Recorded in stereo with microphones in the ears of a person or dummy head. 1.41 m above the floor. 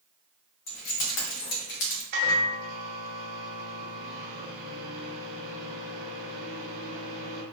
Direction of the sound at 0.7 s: 50° left (ahead or behind).